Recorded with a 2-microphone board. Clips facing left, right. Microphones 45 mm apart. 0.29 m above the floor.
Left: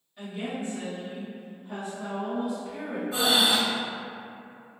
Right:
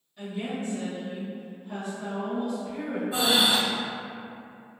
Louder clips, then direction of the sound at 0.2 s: Right 1 dB; 15° left (ahead or behind).